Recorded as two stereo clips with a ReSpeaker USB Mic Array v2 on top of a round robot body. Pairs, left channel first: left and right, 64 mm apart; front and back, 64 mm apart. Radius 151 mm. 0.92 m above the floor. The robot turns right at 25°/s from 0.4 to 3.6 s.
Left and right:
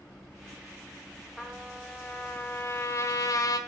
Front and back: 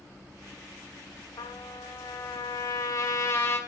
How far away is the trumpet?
About 1.8 m.